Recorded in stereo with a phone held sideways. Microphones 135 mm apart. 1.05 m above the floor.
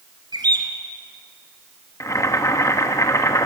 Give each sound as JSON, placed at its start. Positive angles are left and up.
{"t": 0.3, "sound": "a bird", "side_deg": -30, "distance_m": 2.5}
{"t": 2.0, "sound": "boiling", "side_deg": 25, "distance_m": 1.2}